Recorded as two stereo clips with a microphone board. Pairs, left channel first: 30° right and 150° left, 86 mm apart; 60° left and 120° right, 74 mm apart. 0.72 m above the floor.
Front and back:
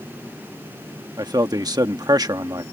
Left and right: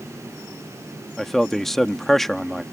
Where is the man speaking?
145° left.